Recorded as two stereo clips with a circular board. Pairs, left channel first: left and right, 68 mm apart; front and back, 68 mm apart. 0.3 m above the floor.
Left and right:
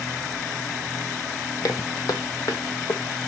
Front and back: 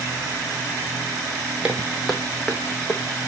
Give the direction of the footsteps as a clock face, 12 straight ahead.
8 o'clock.